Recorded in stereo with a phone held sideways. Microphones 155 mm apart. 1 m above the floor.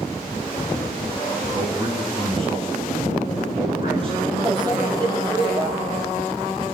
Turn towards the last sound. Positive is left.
turn(degrees=-25)  # may be behind; listen again after turning